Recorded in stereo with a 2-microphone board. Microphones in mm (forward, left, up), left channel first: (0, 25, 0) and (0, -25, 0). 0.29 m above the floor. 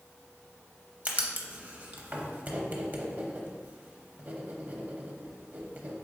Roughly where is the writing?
Right.